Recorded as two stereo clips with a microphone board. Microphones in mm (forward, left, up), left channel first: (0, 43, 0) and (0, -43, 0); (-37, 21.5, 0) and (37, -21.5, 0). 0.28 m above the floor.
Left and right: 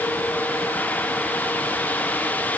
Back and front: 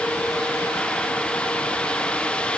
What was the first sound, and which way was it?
Only background noise.